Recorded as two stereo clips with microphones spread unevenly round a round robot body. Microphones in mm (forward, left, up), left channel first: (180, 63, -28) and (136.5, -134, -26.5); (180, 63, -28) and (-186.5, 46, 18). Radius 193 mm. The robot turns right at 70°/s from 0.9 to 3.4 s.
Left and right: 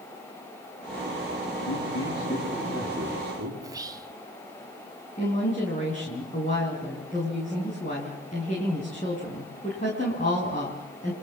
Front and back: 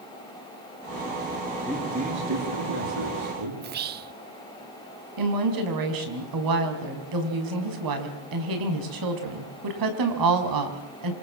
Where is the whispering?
145° right, 0.5 m.